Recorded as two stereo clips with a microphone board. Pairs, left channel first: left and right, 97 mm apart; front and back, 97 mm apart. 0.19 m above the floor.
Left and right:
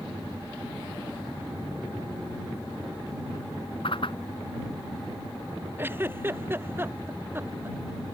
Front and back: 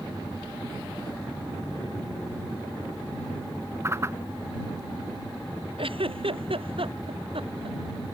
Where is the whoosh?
120° left.